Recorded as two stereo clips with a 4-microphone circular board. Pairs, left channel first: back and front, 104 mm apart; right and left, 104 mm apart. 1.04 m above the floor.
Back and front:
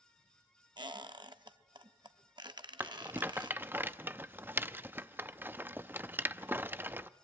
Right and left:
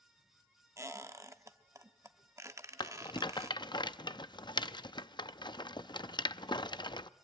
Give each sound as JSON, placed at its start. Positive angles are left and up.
{"t": 0.8, "sound": "a squeak", "azimuth_deg": 35, "distance_m": 0.8}
{"t": 2.8, "sound": "a rattle", "azimuth_deg": -65, "distance_m": 0.5}